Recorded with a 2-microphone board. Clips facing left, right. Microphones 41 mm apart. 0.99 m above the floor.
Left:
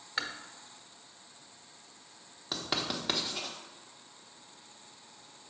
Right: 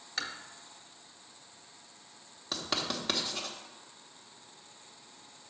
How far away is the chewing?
About 0.8 m.